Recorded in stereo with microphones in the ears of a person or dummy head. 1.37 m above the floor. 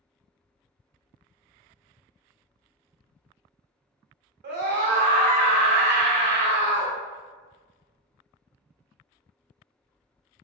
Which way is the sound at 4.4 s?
50° right (ahead or behind).